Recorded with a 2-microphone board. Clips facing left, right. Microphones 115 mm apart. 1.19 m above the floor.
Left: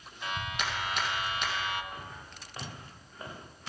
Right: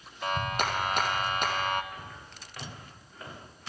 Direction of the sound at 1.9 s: 30° left (ahead or behind).